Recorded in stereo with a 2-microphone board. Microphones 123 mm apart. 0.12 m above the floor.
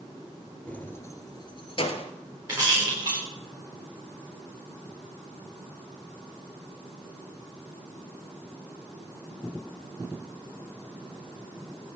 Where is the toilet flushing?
I don't hear a toilet flushing.